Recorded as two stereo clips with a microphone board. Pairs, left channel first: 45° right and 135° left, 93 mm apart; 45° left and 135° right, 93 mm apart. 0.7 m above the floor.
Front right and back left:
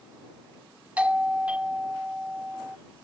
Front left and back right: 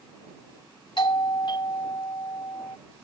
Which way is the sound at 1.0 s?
60° left.